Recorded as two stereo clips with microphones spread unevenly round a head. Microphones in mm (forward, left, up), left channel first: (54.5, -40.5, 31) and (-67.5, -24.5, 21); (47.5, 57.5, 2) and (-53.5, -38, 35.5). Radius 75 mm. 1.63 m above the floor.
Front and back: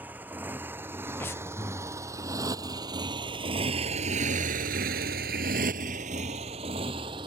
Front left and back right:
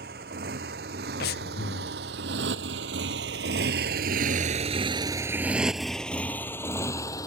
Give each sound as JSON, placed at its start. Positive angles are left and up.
{"t": 0.0, "sound": "a motorcycle", "azimuth_deg": -110}
{"t": 1.2, "sound": "breathing", "azimuth_deg": 65}